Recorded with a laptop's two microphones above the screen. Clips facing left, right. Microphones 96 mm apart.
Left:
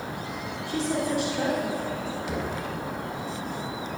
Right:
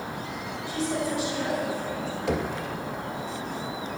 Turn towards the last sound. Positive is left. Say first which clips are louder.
# right 6 dB
turn(degrees=-80)